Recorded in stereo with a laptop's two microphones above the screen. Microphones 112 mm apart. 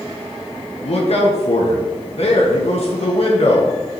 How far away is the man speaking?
About 1.2 m.